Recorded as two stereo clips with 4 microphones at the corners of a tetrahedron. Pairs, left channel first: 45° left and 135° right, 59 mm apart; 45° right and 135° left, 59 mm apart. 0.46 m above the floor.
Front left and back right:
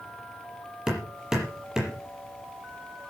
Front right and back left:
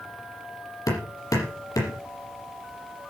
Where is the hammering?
55° right, 6.5 m.